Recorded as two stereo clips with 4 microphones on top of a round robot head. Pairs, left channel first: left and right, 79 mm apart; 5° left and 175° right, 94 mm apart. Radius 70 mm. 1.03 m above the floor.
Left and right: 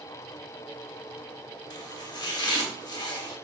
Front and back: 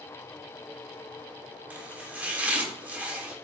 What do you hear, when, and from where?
1.7 s chopping: 115° left, 1.3 m